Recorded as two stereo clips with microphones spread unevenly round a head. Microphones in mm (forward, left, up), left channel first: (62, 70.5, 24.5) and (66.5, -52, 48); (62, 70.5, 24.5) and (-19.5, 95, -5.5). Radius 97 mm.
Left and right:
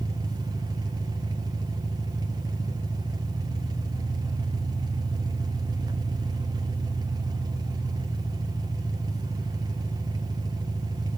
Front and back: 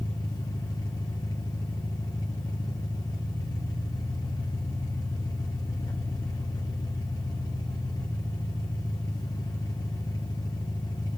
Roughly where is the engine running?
Ahead right.